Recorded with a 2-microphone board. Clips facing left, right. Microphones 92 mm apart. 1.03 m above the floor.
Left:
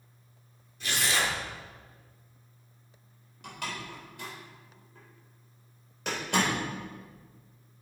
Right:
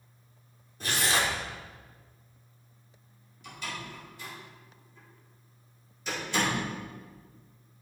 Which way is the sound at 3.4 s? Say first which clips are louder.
Left 1 dB; 80° left.